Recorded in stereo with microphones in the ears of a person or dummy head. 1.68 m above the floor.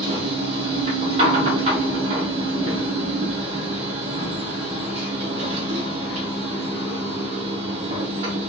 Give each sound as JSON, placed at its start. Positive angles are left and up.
{"t": 0.0, "sound": "a machine running", "side_deg": -35, "distance_m": 0.9}